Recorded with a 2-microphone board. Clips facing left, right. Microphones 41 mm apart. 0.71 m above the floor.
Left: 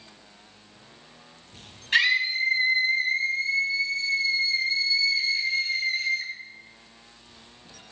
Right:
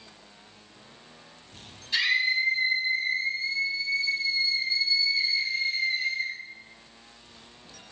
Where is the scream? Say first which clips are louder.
Left 2 dB; 55° left (ahead or behind), 5 m; by 6.3 s 80° left, 9 m.